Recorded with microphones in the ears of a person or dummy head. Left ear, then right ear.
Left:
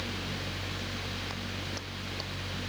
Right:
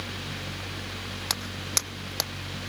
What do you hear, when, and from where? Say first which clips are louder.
1.3 s footsteps: right 7 dB; 65° right (ahead or behind); by 2.3 s 60° right (ahead or behind)